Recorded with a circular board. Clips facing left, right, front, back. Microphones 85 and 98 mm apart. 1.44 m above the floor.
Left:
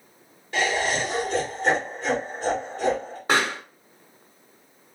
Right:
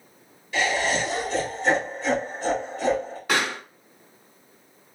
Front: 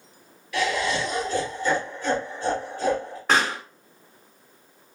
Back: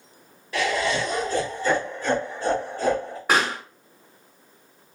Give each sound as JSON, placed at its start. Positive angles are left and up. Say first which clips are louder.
{"t": 0.5, "sound": "laughter", "louder": "even, back 1 dB", "azimuth_deg": 130, "distance_m": 2.5}
{"t": 3.3, "sound": "a pop", "louder": "left 2 dB, even", "azimuth_deg": 105, "distance_m": 1.4}